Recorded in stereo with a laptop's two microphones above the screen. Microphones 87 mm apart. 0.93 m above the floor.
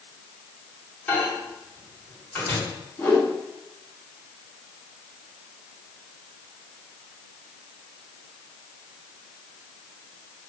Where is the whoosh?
25° left (ahead or behind), 2 m.